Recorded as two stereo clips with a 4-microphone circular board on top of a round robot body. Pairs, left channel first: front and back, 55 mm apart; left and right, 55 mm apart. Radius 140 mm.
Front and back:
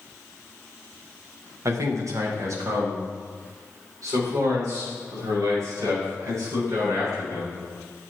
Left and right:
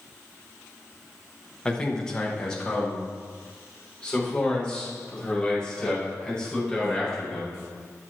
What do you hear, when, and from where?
1.6 s a man speaking: 165° left, 1.4 m; by 7.6 s 175° left, 7.5 m